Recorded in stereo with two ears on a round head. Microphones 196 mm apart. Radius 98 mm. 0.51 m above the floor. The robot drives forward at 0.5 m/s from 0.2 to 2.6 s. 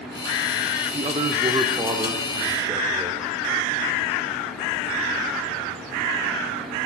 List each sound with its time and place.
0.9 s a man speaking: 25° right (ahead or behind), 0.7 m; by 3.3 s 15° right (ahead or behind), 1.0 m